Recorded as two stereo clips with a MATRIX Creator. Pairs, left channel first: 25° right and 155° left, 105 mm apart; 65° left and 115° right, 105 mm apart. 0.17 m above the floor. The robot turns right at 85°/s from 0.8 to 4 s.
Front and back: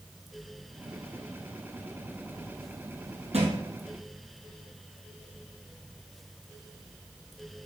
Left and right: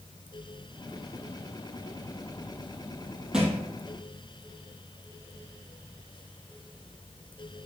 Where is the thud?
165° left, 1.9 m; by 3.6 s 170° right, 1.9 m.